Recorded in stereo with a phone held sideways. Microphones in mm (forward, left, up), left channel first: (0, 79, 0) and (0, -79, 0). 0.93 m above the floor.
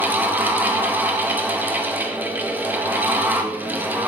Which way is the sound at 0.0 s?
10° right (ahead or behind).